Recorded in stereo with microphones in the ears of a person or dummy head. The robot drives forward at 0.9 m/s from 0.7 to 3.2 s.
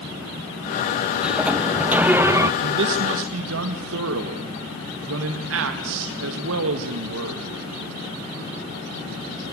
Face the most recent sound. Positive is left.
turn(degrees=-80)